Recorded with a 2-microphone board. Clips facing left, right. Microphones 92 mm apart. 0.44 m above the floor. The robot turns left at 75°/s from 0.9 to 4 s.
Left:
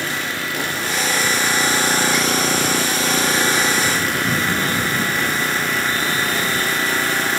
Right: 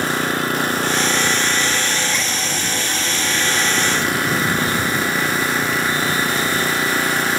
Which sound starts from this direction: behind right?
An engine running, at 0.0 s.